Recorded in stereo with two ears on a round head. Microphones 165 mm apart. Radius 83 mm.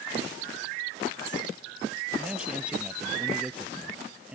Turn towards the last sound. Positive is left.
turn(degrees=-5)  # may be behind; listen again after turning